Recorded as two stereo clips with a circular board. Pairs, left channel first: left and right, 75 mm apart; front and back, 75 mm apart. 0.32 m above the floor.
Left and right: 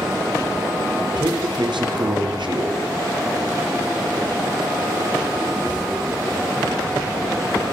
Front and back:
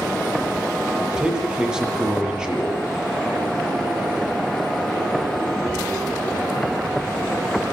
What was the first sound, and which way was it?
A man speaking, 100° right.